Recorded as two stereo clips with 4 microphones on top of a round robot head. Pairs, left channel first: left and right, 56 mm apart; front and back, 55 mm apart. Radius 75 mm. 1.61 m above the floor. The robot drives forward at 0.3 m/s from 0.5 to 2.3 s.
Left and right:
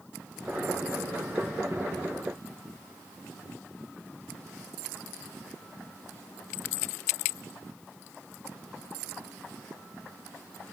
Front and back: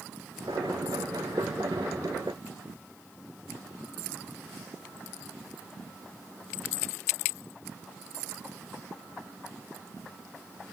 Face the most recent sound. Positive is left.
No sound to turn to.